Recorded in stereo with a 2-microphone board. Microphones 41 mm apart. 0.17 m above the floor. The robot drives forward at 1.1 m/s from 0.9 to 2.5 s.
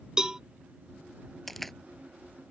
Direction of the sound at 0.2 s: 15° right (ahead or behind).